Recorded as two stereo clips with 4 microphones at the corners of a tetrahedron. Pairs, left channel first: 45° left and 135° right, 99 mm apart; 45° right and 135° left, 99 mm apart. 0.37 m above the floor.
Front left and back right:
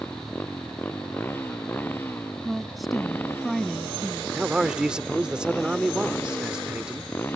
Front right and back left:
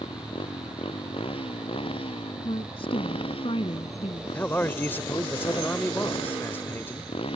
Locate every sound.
0.0 s a motorcycle: 25° right
2.4 s a woman speaking: 45° right
4.3 s a man speaking: 65° right